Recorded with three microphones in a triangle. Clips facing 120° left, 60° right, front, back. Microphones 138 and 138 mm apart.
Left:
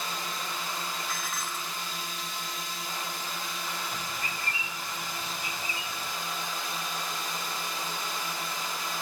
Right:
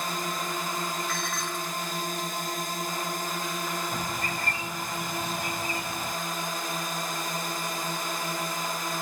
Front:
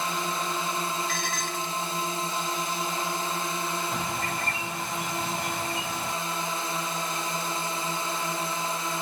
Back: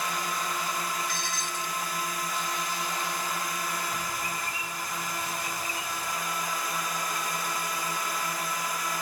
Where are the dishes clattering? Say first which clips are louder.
Right 4 dB, front 3 dB; 35° left.